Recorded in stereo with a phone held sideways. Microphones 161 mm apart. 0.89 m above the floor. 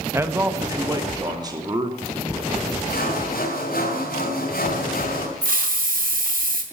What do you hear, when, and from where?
0.1 s a man speaking: 15° right (ahead or behind), 1.3 m; by 2.7 s 30° right (ahead or behind), 3.5 m
2.9 s sawing: 70° left (ahead or behind), 4 m
5.4 s a hiss: 70° right (ahead or behind), 1.9 m